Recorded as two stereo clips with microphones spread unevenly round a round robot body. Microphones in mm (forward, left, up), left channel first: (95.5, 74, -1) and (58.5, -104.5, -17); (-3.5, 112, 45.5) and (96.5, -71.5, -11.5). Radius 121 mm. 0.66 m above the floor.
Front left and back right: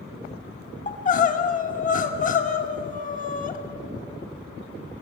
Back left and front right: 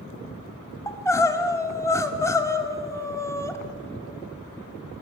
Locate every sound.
0.9 s crying: 35° left, 1.9 m